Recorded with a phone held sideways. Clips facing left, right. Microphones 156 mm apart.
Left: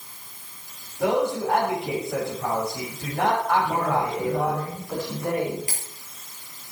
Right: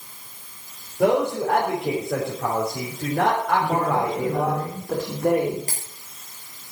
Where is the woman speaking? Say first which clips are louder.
Right 2 dB; 60° right (ahead or behind), 4.5 m.